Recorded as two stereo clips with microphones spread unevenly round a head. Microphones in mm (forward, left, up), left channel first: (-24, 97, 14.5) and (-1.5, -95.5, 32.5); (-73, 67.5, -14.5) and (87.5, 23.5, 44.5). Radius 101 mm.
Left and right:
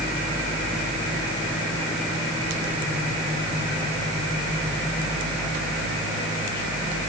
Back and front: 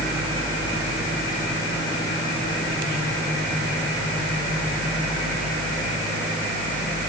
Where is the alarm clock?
No alarm clock in this recording.